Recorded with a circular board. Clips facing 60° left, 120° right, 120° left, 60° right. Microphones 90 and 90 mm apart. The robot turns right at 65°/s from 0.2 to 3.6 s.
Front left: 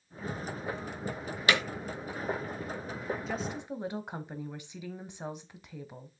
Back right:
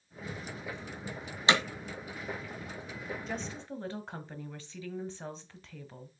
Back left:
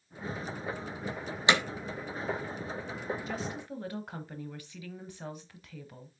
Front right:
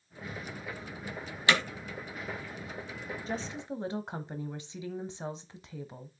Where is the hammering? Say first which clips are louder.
Back right 1 dB, back left 1 dB; 175° right, 1.7 m; by 1.6 s 170° right, 1.7 m.